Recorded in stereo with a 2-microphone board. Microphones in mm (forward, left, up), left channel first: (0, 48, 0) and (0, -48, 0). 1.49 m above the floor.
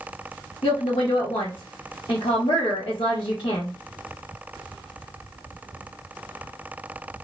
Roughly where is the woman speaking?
Left.